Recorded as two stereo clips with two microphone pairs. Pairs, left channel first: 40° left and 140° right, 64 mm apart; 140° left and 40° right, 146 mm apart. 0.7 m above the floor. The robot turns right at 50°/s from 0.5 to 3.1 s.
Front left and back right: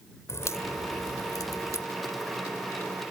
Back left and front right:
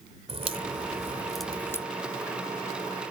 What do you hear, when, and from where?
0.3 s a crack: 5° left; by 1.9 s 75° left